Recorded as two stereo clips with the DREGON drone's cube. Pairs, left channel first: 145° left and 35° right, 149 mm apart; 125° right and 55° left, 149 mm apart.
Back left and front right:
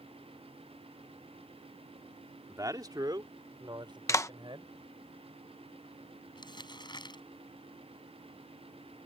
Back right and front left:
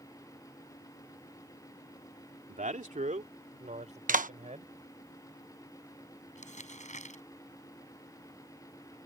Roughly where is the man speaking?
Ahead left.